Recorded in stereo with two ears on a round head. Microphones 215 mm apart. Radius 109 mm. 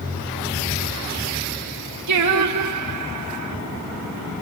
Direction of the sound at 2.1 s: 80° right.